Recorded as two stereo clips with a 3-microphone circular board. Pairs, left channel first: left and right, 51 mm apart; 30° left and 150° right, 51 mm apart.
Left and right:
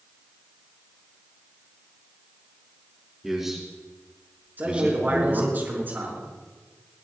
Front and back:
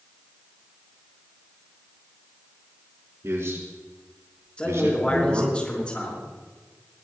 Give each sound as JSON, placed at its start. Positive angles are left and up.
{"t": 3.2, "sound": "a man speaking", "azimuth_deg": -170, "distance_m": 4.5}
{"t": 4.6, "sound": "a man speaking", "azimuth_deg": -35, "distance_m": 5.0}